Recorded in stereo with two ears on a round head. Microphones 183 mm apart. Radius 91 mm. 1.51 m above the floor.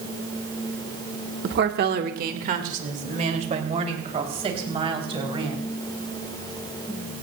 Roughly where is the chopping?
I don't hear chopping.